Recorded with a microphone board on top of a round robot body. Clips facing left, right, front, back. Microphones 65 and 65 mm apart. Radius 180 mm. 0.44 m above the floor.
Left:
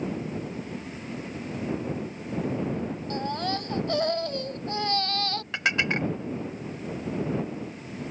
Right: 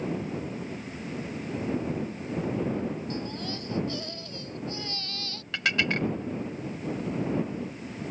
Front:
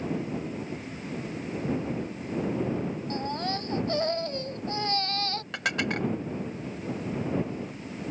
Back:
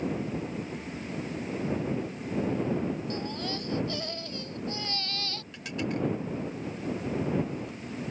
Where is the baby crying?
55° left.